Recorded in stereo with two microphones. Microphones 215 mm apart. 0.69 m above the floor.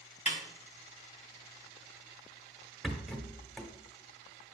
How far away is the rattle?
About 1.0 m.